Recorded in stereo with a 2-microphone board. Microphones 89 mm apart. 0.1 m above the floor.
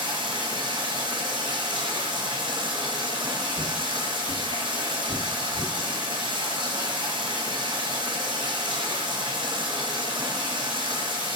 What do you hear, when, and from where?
0.0 s running water: 60° right (ahead or behind), 0.9 m
3.5 s footsteps: 75° left (ahead or behind), 0.8 m; by 5.7 s 55° left (ahead or behind), 1.4 m